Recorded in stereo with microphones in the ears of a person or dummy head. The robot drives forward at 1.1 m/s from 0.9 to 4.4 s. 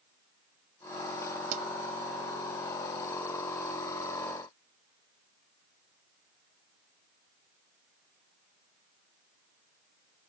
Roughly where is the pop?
Right.